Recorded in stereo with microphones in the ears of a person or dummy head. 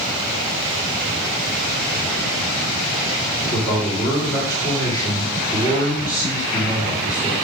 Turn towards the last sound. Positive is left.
turn(degrees=20)  # may be behind; listen again after turning